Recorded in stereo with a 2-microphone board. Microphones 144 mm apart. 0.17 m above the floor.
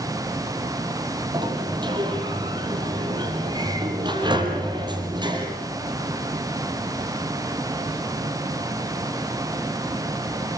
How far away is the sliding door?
About 4 m.